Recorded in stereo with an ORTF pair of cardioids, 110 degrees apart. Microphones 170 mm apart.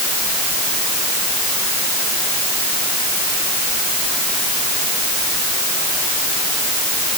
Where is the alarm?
No alarm in this recording.